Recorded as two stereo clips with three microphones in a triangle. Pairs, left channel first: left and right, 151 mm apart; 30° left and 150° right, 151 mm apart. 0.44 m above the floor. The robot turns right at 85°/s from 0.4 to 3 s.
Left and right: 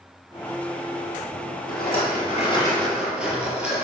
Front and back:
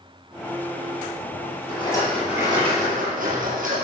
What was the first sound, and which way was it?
A rattle, 75° left.